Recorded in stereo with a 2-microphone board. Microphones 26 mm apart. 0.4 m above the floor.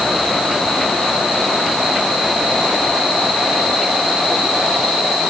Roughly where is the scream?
No scream in this recording.